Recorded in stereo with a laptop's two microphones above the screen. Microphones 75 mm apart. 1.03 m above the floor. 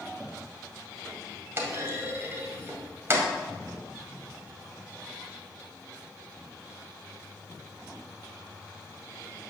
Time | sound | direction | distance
1.6 | a clunk | 35° right (ahead or behind) | 2 m